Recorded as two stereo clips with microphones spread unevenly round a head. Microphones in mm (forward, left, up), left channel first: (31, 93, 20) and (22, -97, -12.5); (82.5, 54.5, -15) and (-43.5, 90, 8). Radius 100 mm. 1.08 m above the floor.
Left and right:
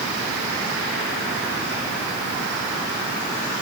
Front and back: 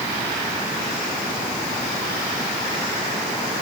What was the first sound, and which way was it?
Only background noise.